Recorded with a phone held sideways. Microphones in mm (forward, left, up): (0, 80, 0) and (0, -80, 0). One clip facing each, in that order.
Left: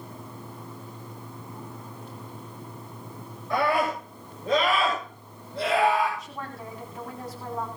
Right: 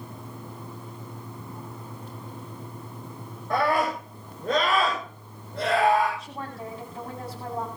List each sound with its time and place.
3.5 s a scream: 55° right (ahead or behind), 8.5 m; by 6.1 s 60° right (ahead or behind), 10 m
6.2 s a woman speaking: 30° right (ahead or behind), 9 m